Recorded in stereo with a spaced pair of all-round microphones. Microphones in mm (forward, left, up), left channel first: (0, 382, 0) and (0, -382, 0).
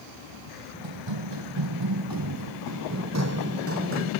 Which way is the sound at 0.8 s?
40° right (ahead or behind).